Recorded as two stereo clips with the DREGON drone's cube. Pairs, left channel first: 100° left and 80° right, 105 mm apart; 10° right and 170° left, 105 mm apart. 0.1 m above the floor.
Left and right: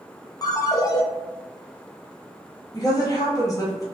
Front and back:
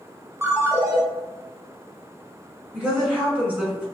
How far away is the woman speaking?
About 1.4 m.